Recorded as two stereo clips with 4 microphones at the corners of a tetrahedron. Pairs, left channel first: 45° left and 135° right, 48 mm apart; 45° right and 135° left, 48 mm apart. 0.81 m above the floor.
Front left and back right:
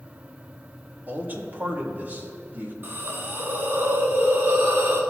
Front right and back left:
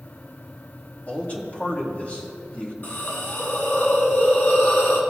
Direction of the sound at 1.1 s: 95° right.